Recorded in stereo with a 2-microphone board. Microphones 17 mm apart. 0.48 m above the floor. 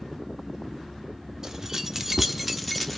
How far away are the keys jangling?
About 0.8 m.